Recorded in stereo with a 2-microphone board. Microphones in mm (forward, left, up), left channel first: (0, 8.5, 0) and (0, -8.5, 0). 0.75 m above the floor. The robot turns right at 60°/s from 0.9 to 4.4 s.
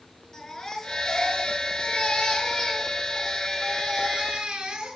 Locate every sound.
0.3 s a baby crying: 35° left, 5.5 m; by 5.0 s 115° right, 5.5 m